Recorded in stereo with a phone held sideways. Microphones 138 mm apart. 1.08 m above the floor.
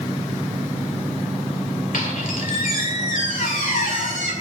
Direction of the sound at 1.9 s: 80° left.